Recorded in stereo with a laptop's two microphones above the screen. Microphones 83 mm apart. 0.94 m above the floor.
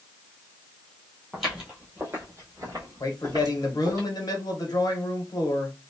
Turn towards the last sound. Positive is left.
turn(degrees=50)  # may be behind; listen again after turning